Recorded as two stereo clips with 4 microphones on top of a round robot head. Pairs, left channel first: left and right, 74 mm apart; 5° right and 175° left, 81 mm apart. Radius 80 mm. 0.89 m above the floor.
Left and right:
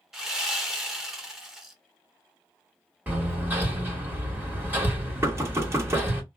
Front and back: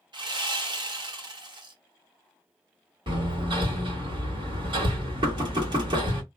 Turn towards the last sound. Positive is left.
turn(degrees=-150)